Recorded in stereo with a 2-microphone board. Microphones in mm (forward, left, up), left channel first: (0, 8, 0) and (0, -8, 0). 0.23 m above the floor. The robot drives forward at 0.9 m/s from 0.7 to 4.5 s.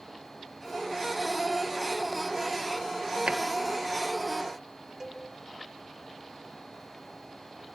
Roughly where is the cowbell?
Right.